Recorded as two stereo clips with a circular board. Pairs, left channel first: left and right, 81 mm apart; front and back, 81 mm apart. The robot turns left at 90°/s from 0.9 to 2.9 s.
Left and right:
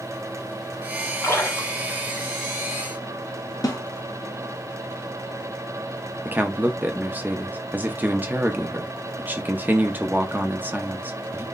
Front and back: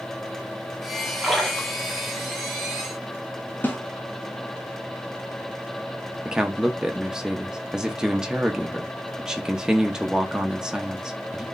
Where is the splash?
95° left, 1.3 m; by 2.3 s straight ahead, 1.3 m.